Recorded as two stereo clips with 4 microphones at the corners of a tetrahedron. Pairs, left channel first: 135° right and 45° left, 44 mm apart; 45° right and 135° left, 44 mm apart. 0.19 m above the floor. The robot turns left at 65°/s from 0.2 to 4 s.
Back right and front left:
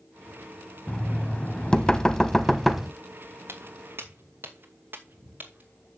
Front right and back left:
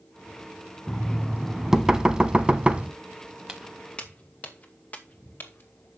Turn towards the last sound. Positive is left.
turn(degrees=0)